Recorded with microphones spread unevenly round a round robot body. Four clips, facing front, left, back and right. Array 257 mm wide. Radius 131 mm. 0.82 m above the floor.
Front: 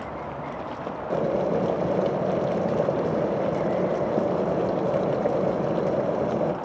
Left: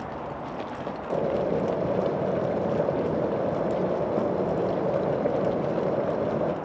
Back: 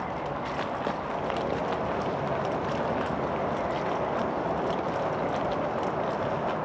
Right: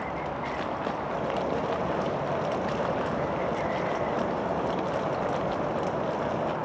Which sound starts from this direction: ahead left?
Boiling, at 1.1 s.